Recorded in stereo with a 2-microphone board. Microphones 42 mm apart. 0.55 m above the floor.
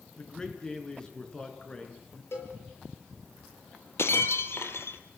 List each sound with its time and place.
0.2 s a man speaking: 20° left (ahead or behind), 5.5 m
2.3 s a cowbell: 65° left (ahead or behind), 6.5 m
4.0 s breaking glass: 75° left (ahead or behind), 2 m